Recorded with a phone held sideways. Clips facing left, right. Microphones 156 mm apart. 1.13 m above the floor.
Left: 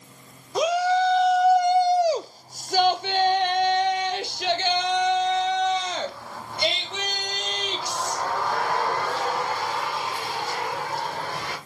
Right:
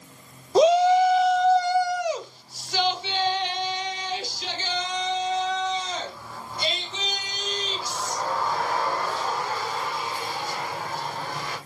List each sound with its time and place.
0.6 s a shout: 30° right (ahead or behind), 0.7 m; by 11.6 s 70° left (ahead or behind), 5.5 m